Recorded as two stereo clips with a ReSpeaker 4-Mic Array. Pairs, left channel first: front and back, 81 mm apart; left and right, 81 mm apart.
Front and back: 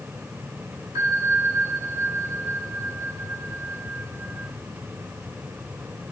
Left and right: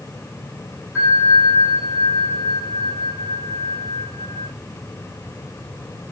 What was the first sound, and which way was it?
A bell, 145° left.